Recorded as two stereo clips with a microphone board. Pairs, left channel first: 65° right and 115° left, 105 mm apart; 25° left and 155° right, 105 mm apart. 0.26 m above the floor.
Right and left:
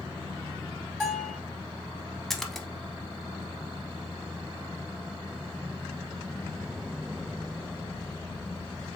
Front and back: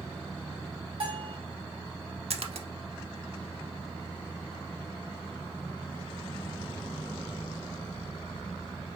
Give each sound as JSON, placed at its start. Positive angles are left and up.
{"t": 1.0, "sound": "a bell", "azimuth_deg": -155, "distance_m": 1.8}
{"t": 2.3, "sound": "a splash", "azimuth_deg": -155, "distance_m": 0.6}